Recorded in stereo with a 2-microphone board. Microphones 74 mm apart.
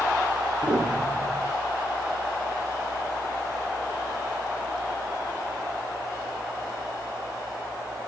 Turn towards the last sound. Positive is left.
turn(degrees=-45)  # may be behind; listen again after turning